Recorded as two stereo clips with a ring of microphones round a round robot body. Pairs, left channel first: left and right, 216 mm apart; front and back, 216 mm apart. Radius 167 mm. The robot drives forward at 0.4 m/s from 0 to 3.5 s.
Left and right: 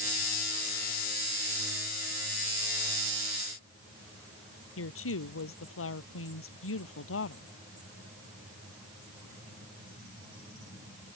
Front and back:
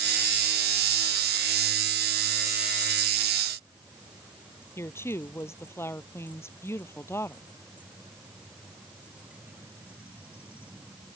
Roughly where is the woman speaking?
Left.